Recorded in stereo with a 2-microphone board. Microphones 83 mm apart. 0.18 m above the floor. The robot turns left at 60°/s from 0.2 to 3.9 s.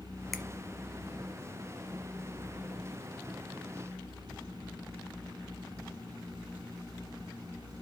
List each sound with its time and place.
0.3 s a finger snap: centre (ahead or behind), 1.2 m; by 0.4 s 5° left (ahead or behind), 1.2 m